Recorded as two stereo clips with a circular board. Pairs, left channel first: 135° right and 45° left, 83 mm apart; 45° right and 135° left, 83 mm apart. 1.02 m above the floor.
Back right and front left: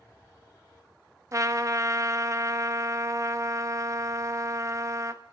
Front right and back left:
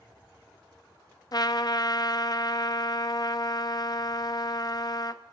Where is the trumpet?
5° right, 0.5 m.